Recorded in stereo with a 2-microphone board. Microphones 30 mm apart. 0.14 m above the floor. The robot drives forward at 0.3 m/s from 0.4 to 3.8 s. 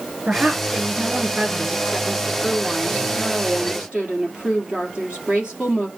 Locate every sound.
0.3 s a woman speaking: 45° right (ahead or behind), 1.9 m; by 5.9 s 35° right (ahead or behind), 2.5 m